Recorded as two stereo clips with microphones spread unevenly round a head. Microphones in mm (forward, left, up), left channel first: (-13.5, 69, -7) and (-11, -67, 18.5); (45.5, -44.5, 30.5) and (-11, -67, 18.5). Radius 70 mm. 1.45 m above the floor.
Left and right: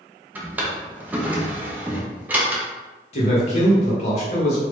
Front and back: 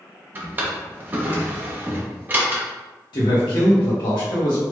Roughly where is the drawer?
Right.